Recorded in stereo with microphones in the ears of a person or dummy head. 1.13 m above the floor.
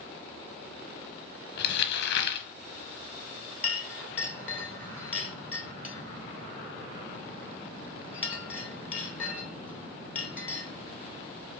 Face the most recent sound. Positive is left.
turn(degrees=15)  # may be behind; listen again after turning